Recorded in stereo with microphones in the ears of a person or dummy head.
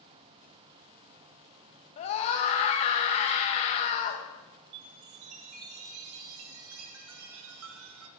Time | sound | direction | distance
2.0 | a scream | 35° left (ahead or behind) | 0.9 m
4.7 | a chime | 75° right (ahead or behind) | 0.6 m